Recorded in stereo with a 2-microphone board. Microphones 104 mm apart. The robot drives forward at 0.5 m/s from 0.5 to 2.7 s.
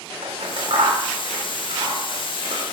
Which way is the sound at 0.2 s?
70° right (ahead or behind).